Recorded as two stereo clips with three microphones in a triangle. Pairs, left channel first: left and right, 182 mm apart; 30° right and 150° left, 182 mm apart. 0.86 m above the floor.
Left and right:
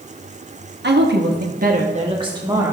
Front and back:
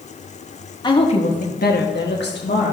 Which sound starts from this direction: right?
A woman speaking, at 0.8 s.